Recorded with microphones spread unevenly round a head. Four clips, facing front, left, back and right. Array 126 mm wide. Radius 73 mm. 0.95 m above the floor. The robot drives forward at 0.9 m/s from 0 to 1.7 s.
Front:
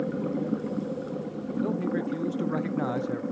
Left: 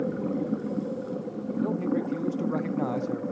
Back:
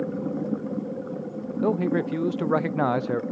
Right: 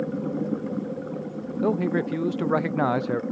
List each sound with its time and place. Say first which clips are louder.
1.6 s a man speaking: right 4 dB, back 6 dB; 115° right, 0.5 m; by 3.2 s 125° right, 0.6 m